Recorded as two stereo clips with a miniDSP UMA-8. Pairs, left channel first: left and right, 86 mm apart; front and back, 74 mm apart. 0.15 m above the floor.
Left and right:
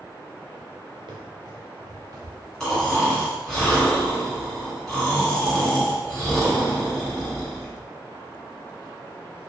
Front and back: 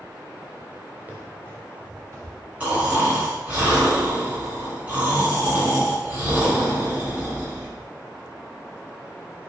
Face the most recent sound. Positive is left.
turn(degrees=160)